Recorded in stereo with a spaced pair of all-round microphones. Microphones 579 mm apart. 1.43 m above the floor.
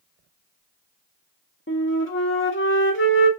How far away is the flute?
About 0.9 m.